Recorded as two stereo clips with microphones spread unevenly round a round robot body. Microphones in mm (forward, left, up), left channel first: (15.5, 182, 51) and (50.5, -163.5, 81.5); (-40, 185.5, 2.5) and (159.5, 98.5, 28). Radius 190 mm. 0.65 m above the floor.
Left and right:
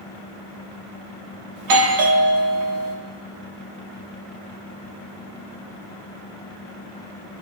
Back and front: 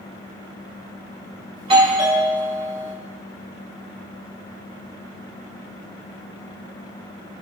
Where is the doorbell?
95° right, 1.6 m.